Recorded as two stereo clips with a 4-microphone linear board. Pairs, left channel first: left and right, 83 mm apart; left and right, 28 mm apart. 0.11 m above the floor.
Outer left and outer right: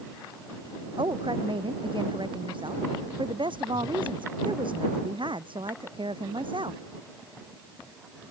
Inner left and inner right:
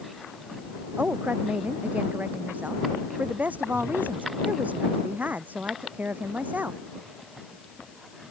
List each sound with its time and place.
1.0 s a woman speaking: 75° right (ahead or behind)